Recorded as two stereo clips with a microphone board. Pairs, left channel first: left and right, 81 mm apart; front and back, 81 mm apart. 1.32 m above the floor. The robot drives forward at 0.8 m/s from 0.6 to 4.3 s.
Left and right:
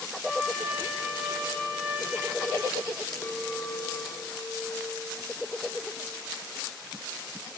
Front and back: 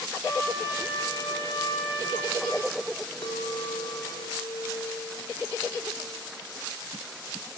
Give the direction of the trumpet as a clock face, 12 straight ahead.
1 o'clock.